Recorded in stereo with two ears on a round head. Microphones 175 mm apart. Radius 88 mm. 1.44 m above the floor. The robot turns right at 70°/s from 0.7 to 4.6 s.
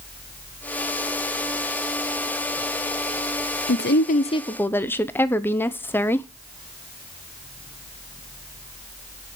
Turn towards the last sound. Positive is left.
turn(degrees=170)